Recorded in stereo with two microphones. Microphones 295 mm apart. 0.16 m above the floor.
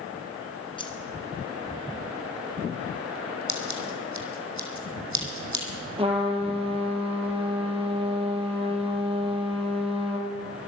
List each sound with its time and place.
0.8 s keys jangling: 15° left (ahead or behind), 1.4 m
3.5 s scissors: 70° right (ahead or behind), 2 m
6.0 s a trumpet: 20° right (ahead or behind), 3 m